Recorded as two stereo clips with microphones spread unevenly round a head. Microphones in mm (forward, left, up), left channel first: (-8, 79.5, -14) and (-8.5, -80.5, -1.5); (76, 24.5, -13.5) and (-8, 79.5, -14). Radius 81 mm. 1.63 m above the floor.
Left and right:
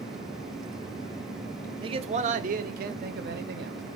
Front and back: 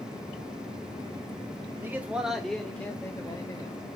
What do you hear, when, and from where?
1.8 s a man speaking: 145° right, 0.8 m; by 3.8 s 100° right, 1.6 m